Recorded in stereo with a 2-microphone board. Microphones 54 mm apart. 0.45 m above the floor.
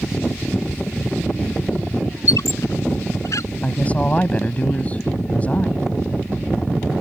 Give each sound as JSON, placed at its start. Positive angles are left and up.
{"t": 2.3, "sound": "a squeak", "side_deg": 90}
{"t": 3.6, "sound": "a woman speaking", "side_deg": 25}